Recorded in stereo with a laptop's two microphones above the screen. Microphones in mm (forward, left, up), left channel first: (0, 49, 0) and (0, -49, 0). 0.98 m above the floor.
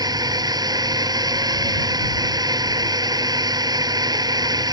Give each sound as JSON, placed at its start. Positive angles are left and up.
{"t": 0.0, "sound": "a drone", "side_deg": -40}